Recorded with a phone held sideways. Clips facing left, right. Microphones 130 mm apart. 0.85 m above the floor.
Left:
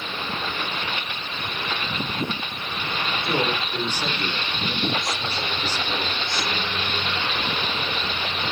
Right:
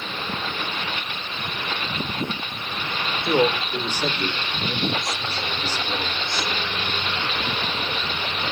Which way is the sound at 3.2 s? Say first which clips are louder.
Right 6 dB; 25° right (ahead or behind).